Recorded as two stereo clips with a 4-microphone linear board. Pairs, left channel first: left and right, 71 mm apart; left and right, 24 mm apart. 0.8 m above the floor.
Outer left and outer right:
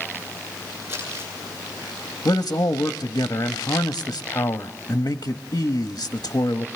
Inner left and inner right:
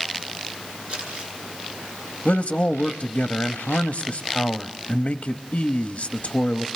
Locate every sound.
0.9 s crumpling: 35° right (ahead or behind), 8.5 m
2.2 s a man speaking: 50° left (ahead or behind), 0.7 m